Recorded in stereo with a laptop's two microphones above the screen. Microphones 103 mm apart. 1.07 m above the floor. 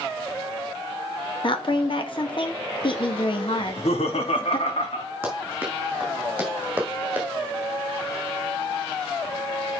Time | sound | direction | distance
1.4 | a woman speaking | 55° left (ahead or behind) | 1.4 m
3.6 | laughter | 75° left (ahead or behind) | 2.5 m
5.2 | running footsteps | 15° right (ahead or behind) | 3 m